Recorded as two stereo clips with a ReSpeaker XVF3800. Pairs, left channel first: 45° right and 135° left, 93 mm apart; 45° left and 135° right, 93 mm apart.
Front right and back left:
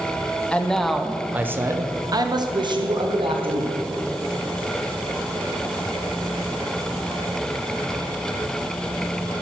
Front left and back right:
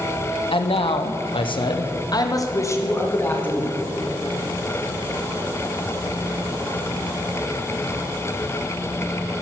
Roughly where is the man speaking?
Ahead left.